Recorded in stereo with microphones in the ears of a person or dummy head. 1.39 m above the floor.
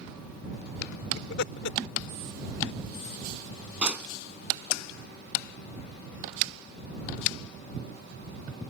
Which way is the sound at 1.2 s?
65° left (ahead or behind).